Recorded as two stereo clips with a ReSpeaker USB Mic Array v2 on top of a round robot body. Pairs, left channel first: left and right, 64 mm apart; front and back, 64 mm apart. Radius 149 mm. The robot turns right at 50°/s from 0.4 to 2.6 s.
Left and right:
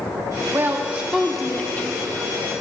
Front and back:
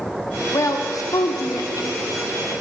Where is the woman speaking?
40° right, 1.4 m; by 2.0 s 40° left, 1.4 m.